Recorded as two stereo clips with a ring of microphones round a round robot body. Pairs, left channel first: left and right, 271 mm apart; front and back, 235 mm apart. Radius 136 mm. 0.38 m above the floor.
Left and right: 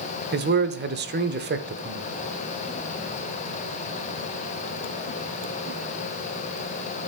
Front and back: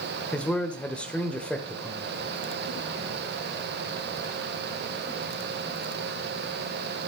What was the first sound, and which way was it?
A man speaking, 80° right.